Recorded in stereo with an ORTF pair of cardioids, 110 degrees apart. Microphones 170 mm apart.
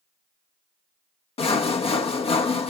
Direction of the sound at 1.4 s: 35° left.